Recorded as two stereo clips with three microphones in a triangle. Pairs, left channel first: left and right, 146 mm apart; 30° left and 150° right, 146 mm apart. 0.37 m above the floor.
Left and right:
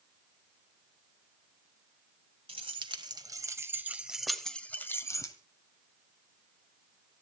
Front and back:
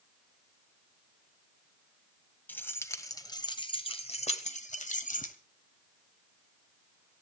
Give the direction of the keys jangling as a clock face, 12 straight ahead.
2 o'clock.